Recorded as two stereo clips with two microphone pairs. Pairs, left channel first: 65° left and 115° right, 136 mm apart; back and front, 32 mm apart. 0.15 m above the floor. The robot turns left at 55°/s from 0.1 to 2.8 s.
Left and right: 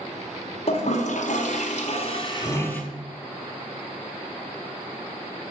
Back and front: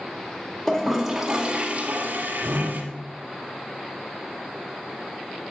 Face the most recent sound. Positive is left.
turn(degrees=-20)